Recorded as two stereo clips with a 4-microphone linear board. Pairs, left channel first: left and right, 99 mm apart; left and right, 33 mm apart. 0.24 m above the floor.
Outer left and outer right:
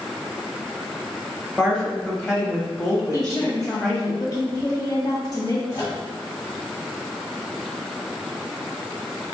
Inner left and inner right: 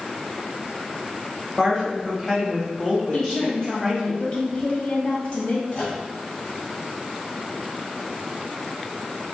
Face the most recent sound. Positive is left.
turn(degrees=30)  # may be behind; listen again after turning